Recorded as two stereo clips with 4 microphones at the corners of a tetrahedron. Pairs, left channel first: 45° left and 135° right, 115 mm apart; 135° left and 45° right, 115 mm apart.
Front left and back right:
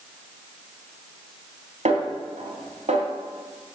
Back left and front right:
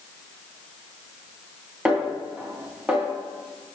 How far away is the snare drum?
About 3 m.